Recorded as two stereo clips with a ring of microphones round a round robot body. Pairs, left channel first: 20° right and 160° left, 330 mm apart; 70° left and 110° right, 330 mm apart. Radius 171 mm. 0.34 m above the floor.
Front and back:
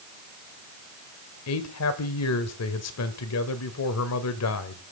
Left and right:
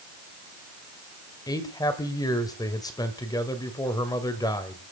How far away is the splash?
I don't hear a splash.